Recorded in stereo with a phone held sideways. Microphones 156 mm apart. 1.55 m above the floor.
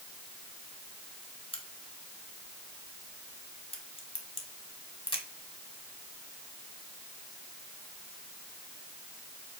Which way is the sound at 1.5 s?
35° left (ahead or behind).